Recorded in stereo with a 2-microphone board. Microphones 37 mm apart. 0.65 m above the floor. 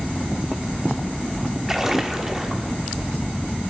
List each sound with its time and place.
1.7 s a splash: 15° right (ahead or behind), 1.2 m